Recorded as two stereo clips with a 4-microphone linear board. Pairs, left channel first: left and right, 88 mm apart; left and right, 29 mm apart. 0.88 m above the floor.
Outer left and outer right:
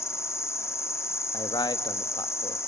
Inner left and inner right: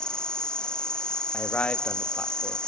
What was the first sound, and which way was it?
An insect, 30° left (ahead or behind).